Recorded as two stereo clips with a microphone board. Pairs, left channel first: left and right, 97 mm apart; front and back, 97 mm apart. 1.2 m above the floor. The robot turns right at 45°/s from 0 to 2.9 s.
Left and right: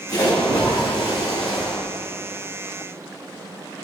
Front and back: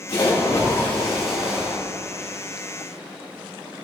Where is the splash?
35° left, 1.8 m; by 1.8 s 115° left, 1.8 m.